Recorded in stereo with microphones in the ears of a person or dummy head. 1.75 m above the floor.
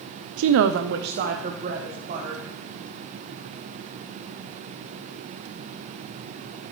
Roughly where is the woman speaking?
Right.